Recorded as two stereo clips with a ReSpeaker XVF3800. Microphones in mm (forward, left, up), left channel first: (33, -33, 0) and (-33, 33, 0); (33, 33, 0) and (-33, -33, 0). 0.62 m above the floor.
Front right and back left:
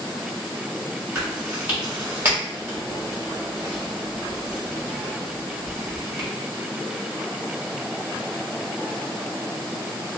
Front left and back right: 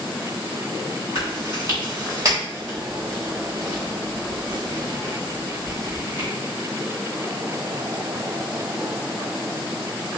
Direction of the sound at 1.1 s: 165° right.